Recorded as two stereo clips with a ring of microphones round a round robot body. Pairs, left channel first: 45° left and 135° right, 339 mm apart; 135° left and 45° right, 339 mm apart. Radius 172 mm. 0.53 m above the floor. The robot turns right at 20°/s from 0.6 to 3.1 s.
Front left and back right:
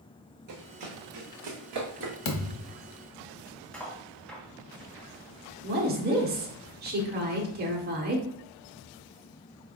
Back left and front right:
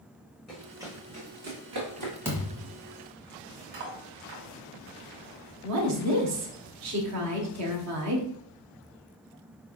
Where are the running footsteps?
135° right, 1.6 m; by 2.1 s 75° right, 2.0 m.